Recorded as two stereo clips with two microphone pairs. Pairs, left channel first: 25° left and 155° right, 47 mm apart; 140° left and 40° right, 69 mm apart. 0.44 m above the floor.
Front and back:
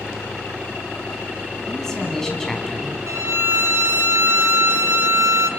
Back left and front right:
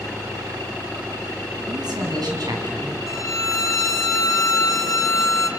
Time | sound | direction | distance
1.7 | a man speaking | 45° right | 4 m
3.1 | a violin | 175° right | 1.0 m